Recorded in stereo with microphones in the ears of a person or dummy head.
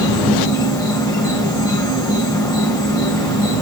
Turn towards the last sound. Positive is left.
turn(degrees=15)  # may be behind; listen again after turning